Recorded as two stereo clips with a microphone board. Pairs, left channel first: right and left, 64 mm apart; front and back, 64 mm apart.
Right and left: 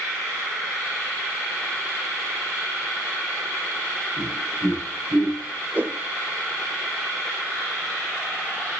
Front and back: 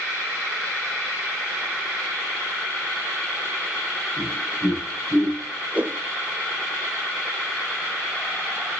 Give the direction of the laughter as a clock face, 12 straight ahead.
9 o'clock.